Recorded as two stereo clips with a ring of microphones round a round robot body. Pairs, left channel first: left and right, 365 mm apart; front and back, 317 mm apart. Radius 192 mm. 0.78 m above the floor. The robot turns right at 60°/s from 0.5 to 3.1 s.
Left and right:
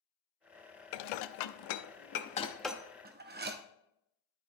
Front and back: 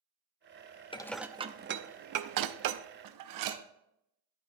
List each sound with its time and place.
0.9 s dishes clattering: 75° left, 0.6 m; by 3.6 s 155° right, 0.6 m